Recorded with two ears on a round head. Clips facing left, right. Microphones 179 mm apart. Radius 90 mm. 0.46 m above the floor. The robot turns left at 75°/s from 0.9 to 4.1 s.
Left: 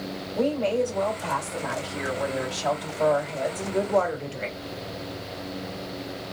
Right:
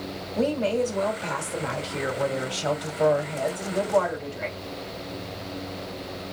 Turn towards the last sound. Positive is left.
turn(degrees=110)